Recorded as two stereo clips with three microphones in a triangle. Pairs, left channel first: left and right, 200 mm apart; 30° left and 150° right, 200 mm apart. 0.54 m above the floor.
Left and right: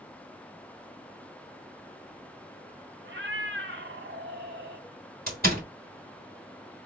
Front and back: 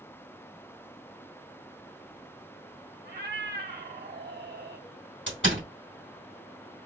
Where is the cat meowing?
110° right, 1.1 m.